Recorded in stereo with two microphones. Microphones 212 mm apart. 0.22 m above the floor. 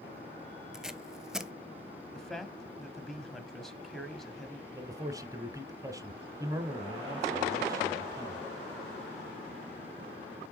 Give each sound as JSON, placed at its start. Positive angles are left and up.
{"t": 0.7, "sound": "tape being pulled", "side_deg": -5, "distance_m": 0.6}
{"t": 2.1, "sound": "a man speaking", "side_deg": 0, "distance_m": 1.0}
{"t": 4.7, "sound": "a man speaking", "side_deg": -15, "distance_m": 1.0}